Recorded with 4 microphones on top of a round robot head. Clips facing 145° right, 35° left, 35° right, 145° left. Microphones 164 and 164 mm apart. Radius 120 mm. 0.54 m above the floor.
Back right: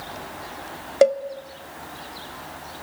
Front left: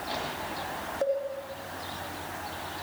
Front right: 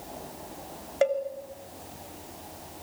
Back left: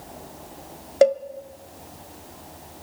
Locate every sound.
1.0 s a cowbell: 160° right, 1.2 m